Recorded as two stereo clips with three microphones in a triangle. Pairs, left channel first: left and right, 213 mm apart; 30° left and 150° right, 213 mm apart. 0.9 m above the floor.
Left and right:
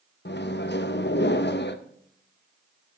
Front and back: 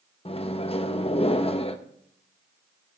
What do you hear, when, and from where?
0.2 s a microwave: 85° left, 0.6 m